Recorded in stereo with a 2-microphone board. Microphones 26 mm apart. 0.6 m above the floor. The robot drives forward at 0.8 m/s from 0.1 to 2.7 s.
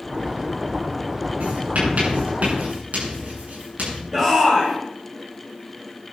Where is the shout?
20° right (ahead or behind), 3.5 m.